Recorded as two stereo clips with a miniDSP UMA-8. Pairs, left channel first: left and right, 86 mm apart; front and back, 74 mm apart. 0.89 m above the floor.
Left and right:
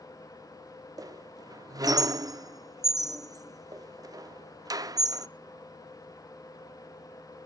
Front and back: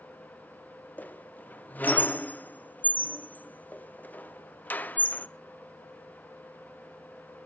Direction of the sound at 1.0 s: 65° right.